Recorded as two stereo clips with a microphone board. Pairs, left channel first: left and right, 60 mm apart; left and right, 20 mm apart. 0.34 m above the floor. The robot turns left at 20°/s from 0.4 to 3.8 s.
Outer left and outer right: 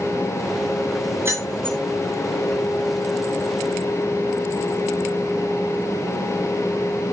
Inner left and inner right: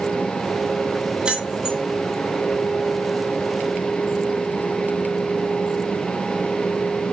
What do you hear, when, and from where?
1.2 s keys jangling: 45° right (ahead or behind), 3 m; by 1.8 s 35° right (ahead or behind), 3 m